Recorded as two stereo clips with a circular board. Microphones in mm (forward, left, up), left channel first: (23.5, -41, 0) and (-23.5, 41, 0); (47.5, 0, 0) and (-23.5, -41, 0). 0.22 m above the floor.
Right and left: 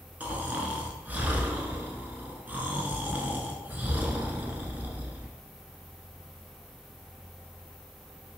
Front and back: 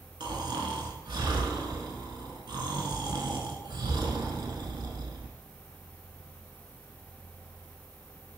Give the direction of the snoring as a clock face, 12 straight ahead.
6 o'clock.